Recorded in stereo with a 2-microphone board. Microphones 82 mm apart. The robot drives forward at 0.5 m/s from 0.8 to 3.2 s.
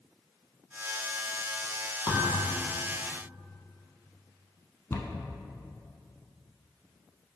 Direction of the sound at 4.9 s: 35° left (ahead or behind).